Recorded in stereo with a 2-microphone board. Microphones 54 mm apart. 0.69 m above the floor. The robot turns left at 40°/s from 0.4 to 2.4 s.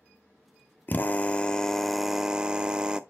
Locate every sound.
0.9 s a drill: 45° left, 0.8 m; by 3.0 s 15° right, 0.8 m